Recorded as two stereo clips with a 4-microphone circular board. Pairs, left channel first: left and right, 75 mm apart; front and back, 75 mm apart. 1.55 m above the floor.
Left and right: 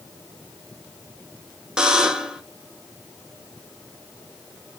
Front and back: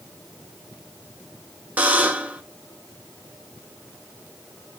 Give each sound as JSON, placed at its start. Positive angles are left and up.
{"t": 1.8, "sound": "a buzzer", "azimuth_deg": -160, "distance_m": 0.6}